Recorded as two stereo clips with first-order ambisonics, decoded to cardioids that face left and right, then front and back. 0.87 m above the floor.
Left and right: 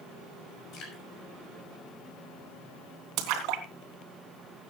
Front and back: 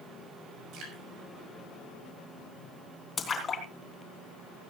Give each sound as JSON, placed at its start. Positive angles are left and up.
{"t": 0.7, "sound": "dripping", "azimuth_deg": 135, "distance_m": 6.0}
{"t": 3.2, "sound": "a splash", "azimuth_deg": -70, "distance_m": 3.0}